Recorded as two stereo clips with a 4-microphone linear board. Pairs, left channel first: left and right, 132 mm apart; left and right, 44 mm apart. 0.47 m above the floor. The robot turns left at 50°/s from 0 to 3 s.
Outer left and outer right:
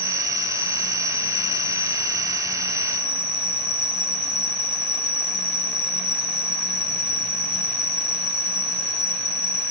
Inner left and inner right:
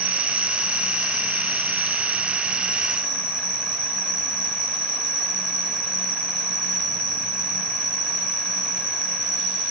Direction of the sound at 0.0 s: 20° right.